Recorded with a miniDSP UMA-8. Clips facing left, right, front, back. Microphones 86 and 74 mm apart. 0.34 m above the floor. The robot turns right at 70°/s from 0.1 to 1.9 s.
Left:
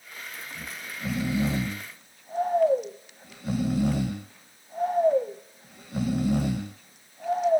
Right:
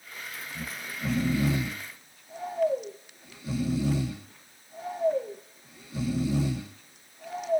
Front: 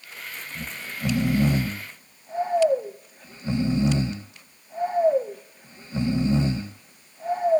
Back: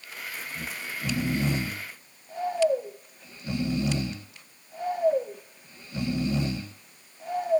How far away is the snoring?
About 0.9 m.